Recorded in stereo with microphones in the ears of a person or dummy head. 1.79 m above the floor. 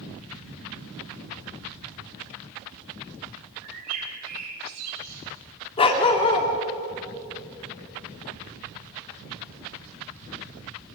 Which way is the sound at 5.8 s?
25° left (ahead or behind).